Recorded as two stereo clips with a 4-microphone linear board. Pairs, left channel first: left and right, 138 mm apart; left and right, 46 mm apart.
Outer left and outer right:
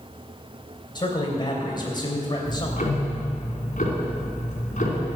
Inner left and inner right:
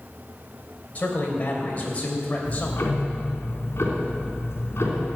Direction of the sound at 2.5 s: 60° left (ahead or behind).